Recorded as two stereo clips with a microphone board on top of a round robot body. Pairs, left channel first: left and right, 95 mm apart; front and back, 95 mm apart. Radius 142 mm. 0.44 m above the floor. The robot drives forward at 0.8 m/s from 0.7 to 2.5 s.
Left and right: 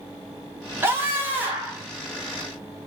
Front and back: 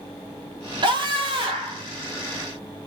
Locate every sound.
0.8 s a scream: 155° right, 2 m; by 1.8 s 160° right, 3 m